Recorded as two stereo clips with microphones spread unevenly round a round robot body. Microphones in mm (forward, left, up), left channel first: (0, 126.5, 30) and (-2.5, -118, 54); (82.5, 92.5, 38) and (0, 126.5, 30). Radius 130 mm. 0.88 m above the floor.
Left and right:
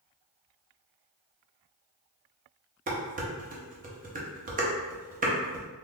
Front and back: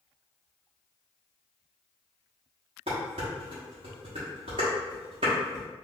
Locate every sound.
2.9 s dishes clattering: 150° right, 0.7 m